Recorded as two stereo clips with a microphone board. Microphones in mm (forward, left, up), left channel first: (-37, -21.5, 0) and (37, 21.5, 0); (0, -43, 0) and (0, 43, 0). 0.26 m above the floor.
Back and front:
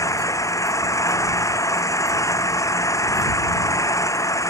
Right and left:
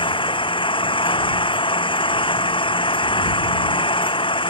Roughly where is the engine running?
Right.